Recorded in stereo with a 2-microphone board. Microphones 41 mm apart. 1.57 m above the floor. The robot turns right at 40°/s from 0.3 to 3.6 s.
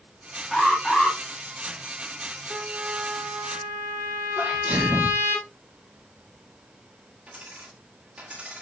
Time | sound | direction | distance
0.5 | an alarm | 5° right (ahead or behind) | 2 m
2.5 | a trumpet | 155° right | 1.8 m
4.4 | a sneeze | 35° right (ahead or behind) | 1.7 m
7.3 | a dropped coin | 30° right (ahead or behind) | 3 m